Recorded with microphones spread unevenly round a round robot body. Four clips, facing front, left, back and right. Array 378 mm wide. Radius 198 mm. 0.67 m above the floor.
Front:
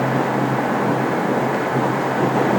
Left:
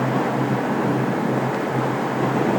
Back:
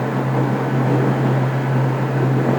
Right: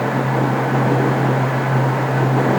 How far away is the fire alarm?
No fire alarm in this recording.